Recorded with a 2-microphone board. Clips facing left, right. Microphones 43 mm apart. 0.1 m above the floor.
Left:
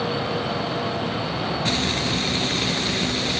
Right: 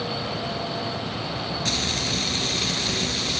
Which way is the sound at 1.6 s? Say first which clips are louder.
Left 2 dB; 20° left (ahead or behind).